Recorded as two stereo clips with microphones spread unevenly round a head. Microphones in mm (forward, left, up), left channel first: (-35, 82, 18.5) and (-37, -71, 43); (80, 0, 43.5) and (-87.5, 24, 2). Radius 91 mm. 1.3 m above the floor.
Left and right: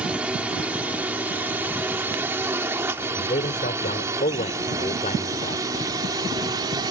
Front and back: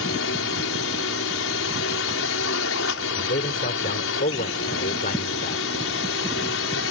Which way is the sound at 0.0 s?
5° right.